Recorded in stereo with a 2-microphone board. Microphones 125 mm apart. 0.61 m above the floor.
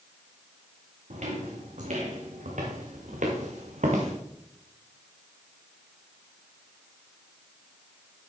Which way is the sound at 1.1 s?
70° right (ahead or behind).